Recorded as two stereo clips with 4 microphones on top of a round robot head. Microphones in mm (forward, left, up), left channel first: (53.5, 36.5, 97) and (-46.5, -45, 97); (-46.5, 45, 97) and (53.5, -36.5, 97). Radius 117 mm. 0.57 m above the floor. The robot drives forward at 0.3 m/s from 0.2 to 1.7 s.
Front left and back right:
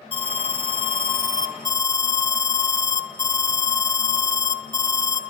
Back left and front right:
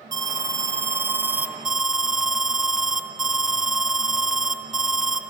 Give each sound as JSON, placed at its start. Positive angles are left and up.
{"t": 0.1, "sound": "an alarm", "azimuth_deg": 10, "distance_m": 0.8}